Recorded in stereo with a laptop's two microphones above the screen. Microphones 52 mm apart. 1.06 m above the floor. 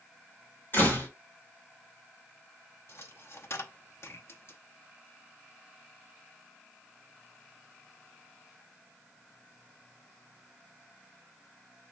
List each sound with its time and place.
0.7 s a door slam: 40° left (ahead or behind), 2.5 m
2.9 s a dropped coin: 55° left (ahead or behind), 0.6 m